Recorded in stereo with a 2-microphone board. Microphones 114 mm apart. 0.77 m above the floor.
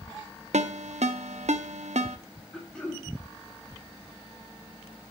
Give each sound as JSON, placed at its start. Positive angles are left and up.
{"t": 0.5, "sound": "a ringtone", "side_deg": -80, "distance_m": 0.6}
{"t": 2.5, "sound": "throat clearing", "side_deg": 10, "distance_m": 2.0}